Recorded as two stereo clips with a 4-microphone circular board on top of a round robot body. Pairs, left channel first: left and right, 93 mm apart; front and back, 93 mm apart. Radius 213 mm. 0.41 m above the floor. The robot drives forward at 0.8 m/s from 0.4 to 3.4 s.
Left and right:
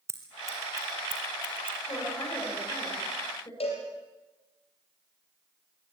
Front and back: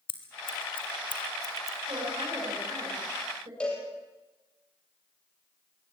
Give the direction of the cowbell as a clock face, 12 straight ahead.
9 o'clock.